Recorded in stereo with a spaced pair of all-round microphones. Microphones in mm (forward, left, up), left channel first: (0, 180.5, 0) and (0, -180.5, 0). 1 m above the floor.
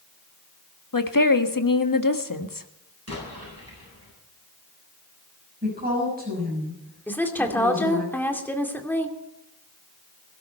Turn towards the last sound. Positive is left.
turn(degrees=5)  # may be behind; listen again after turning